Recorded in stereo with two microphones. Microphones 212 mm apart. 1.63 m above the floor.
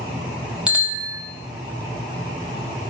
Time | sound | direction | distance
0.7 | a bicycle bell | 5° right (ahead or behind) | 3.5 m